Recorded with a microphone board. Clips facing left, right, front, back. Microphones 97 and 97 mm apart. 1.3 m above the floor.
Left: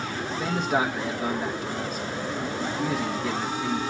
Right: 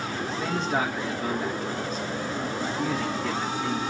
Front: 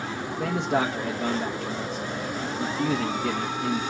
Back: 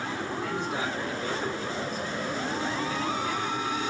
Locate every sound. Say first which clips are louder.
0.3 s a man speaking: left 2 dB, front 8 dB; 15° left, 1.2 m